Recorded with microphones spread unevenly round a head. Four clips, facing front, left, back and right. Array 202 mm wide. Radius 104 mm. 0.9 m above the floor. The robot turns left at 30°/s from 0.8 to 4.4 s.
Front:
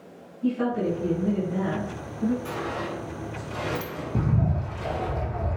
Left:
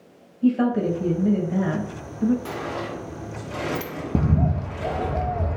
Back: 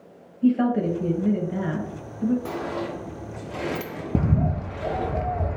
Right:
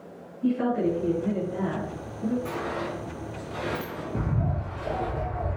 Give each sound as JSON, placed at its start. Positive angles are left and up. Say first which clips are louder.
{"t": 0.4, "sound": "a woman speaking", "louder": "left 4 dB, back 4 dB", "azimuth_deg": 140, "distance_m": 1.4}
{"t": 2.5, "sound": "a sliding door", "louder": "left 1 dB, back 2 dB", "azimuth_deg": 165, "distance_m": 0.9}
{"t": 4.2, "sound": "a bird", "louder": "left 8 dB, back 3 dB", "azimuth_deg": 140, "distance_m": 0.6}